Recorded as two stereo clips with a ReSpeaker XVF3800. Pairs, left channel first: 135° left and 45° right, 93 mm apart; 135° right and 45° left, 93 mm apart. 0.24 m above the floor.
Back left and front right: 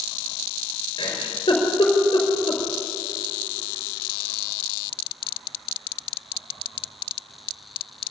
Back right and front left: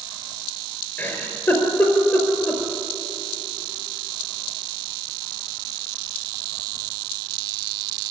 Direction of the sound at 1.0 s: 160° left.